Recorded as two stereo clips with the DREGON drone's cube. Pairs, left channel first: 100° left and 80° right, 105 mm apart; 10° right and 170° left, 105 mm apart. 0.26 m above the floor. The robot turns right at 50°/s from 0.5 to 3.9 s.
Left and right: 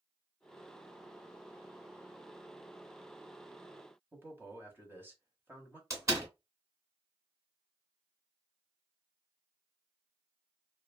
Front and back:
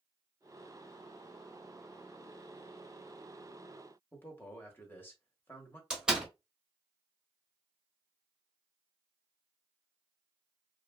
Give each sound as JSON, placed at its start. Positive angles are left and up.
{"t": 4.1, "sound": "a man speaking", "azimuth_deg": -45, "distance_m": 1.0}
{"t": 5.9, "sound": "a door slam", "azimuth_deg": -110, "distance_m": 1.2}